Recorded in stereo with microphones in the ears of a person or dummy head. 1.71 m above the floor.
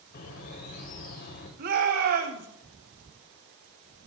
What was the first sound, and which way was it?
A bird, 50° left (ahead or behind).